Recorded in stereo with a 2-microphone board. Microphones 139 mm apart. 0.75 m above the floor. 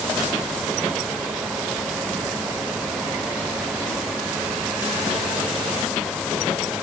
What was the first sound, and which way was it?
Only background noise.